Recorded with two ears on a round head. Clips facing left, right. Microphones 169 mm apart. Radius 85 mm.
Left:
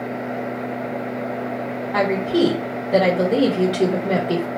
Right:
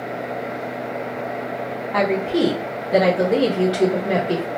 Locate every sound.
1.9 s a woman speaking: centre (ahead or behind), 0.9 m